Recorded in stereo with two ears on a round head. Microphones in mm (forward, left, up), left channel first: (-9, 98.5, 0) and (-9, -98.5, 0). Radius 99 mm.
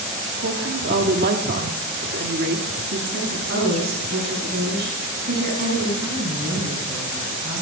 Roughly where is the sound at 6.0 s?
Centre.